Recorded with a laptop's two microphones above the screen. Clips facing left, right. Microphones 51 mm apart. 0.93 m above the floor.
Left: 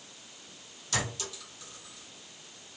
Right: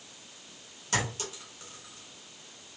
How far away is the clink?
About 1.8 m.